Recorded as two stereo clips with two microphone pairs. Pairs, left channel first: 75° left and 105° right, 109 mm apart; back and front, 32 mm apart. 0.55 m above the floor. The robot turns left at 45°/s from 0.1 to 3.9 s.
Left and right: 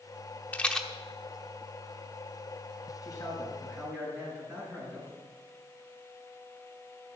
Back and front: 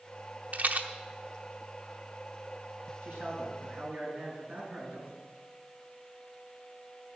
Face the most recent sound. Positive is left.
turn(degrees=-25)